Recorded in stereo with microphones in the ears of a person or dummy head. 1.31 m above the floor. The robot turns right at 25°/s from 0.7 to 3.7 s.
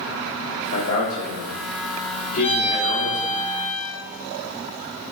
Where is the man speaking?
95° left, 2.0 m; by 3.4 s 160° left, 2.0 m.